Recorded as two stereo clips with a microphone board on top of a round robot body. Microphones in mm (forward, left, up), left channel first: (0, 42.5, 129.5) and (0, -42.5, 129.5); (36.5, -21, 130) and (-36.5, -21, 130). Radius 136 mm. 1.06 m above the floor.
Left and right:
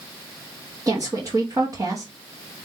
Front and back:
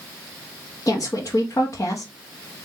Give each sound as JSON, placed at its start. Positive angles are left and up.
{"t": 0.9, "sound": "a woman speaking", "azimuth_deg": -40, "distance_m": 1.3}